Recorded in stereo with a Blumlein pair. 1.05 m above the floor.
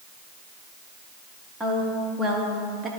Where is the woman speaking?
10° right, 2.5 m; by 2.9 s 25° right, 1.5 m.